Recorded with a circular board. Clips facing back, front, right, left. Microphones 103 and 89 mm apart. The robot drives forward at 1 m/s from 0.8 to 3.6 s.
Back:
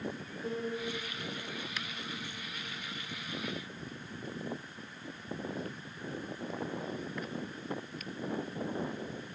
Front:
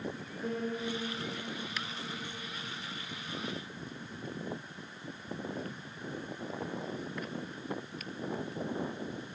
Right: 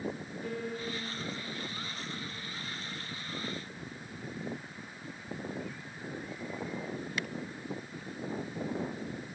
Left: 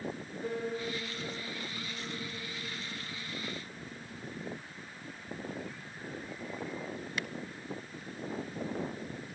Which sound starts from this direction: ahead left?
A piano, at 0.4 s.